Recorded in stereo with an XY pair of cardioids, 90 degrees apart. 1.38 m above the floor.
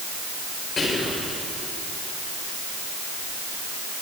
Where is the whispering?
55° left, 5 m.